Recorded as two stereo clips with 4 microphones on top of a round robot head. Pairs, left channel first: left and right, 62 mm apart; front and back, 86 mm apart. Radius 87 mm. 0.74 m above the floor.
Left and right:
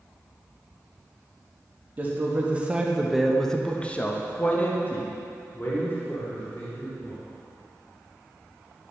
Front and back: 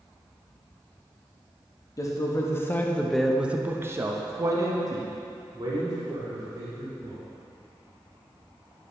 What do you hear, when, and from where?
2.0 s a man speaking: 35° right, 1.2 m; by 7.2 s 145° left, 3 m